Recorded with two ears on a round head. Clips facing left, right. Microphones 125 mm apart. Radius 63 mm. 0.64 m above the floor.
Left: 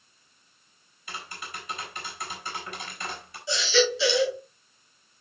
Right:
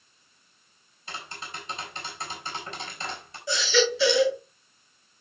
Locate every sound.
1.1 s tapping: 25° right (ahead or behind), 5.5 m
3.5 s a baby crying: 45° right (ahead or behind), 7.5 m